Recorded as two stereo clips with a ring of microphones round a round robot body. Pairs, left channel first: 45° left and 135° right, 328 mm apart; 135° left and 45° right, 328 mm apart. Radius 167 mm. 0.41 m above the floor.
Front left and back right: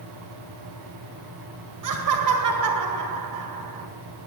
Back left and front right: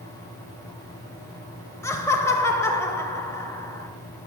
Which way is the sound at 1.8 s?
145° right.